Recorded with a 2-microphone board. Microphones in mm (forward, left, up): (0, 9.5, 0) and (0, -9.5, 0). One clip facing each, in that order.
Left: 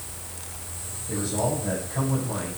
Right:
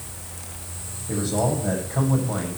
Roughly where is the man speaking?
Centre.